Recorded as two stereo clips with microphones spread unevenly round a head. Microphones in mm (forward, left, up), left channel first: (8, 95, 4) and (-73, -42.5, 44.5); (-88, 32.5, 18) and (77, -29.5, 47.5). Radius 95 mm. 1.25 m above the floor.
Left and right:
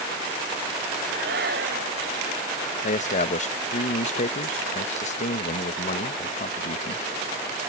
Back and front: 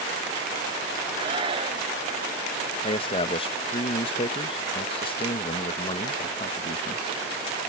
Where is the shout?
80° right.